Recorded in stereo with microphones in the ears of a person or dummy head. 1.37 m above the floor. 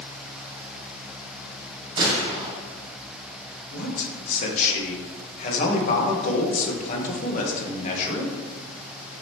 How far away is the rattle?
I don't hear a rattle.